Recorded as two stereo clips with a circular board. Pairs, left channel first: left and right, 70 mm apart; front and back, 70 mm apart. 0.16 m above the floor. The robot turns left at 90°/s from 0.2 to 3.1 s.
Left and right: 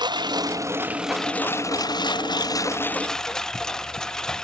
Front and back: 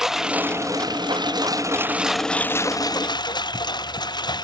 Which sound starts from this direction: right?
A lawn mower, at 0.0 s.